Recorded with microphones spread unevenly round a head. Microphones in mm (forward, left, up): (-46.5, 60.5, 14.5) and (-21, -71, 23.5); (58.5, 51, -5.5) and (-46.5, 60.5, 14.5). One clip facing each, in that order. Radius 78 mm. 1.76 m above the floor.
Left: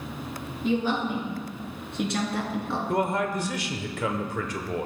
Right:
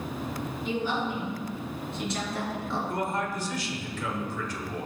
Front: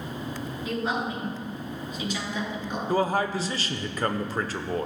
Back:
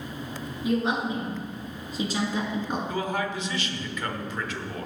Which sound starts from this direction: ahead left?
A man speaking, at 2.9 s.